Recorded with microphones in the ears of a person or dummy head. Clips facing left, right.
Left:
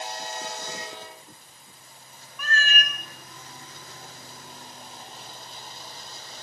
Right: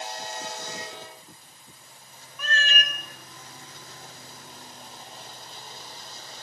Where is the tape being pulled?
I don't hear tape being pulled.